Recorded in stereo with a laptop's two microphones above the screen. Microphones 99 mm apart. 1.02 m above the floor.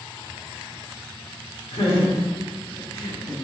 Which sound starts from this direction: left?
Laughter, at 1.7 s.